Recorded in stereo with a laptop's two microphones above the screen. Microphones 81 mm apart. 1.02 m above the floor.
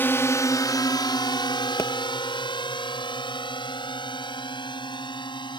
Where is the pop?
35° left (ahead or behind).